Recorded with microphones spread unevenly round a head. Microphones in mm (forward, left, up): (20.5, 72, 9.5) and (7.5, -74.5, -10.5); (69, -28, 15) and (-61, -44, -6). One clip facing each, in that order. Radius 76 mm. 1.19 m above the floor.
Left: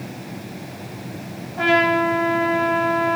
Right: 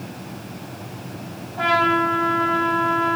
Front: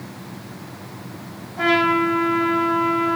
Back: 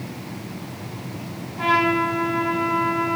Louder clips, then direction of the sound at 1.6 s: Left 3 dB, front 2 dB; 20° left.